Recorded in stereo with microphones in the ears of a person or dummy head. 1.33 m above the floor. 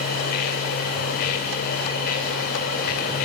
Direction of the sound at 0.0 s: 50° left (ahead or behind).